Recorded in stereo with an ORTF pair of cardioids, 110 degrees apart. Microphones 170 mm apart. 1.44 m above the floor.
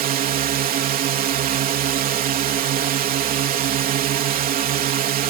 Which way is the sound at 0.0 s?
60° right.